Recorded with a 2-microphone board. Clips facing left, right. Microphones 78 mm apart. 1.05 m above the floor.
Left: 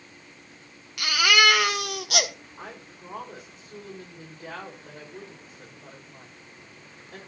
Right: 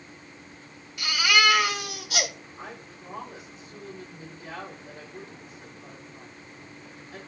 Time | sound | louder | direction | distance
1.0 | a baby crying | left 2 dB | 70° left (ahead or behind) | 1.1 m
2.6 | a woman speaking | even | 45° left (ahead or behind) | 5 m